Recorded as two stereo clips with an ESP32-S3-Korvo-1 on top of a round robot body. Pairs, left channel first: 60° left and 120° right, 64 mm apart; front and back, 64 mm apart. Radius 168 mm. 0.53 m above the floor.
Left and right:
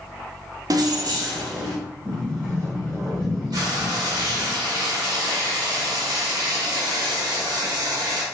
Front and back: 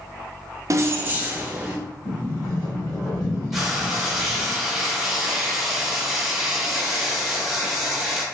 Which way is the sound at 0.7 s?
140° right.